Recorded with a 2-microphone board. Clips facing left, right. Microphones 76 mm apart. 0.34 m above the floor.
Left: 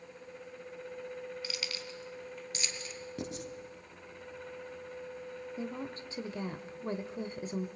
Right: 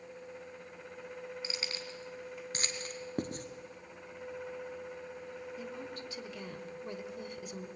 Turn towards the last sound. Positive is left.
turn(degrees=30)  # may be behind; listen again after turning